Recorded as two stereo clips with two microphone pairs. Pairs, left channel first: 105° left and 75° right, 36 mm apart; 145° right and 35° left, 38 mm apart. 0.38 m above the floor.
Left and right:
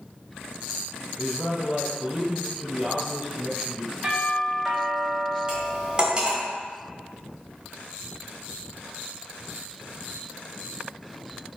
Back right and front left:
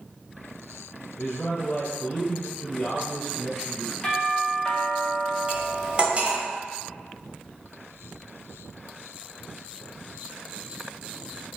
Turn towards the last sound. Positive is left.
turn(degrees=-15)